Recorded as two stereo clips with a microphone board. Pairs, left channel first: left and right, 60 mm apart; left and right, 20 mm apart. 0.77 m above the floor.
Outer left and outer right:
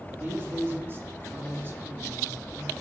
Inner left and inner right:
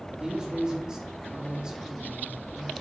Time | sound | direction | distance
0.1 | a man speaking | 35° right (ahead or behind) | 1.4 m